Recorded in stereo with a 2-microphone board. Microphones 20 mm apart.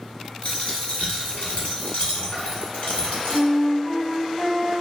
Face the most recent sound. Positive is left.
turn(degrees=15)  # may be behind; listen again after turning